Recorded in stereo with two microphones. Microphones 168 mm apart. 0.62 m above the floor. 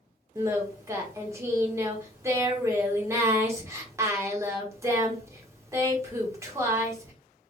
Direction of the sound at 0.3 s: 15° right (ahead or behind).